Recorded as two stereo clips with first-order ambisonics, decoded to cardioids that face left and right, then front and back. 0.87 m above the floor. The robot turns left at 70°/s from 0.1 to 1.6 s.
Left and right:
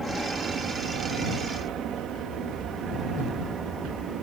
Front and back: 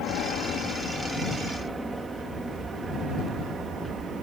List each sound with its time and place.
0.0 s an aircraft: 5° left; by 4.2 s 150° right